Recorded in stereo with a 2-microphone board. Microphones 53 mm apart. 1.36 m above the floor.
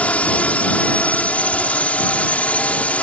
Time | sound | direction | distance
0.0 | a drone | 30° left (ahead or behind) | ?